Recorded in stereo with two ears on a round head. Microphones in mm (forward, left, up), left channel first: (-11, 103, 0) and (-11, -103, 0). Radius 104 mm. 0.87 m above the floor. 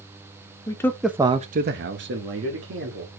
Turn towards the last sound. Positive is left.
turn(degrees=-55)  # may be behind; listen again after turning